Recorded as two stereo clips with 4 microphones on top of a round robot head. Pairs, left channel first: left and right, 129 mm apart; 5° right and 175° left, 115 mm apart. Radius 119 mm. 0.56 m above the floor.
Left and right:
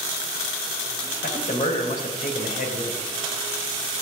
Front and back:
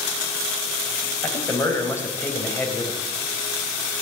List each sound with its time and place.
1.2 s a man speaking: 65° left, 4 m